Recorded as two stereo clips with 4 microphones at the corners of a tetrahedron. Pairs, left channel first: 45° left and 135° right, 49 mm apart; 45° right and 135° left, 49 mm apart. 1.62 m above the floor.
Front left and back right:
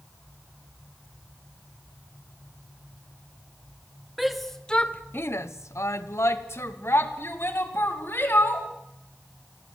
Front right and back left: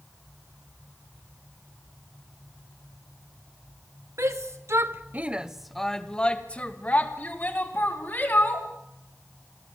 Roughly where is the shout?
Behind left.